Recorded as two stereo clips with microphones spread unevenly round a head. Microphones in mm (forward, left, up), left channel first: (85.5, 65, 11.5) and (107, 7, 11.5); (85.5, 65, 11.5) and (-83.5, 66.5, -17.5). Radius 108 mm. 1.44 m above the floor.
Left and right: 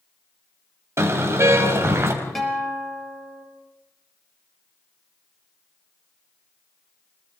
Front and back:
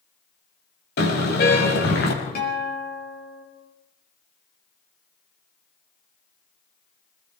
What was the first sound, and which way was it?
A car horn, 30° right.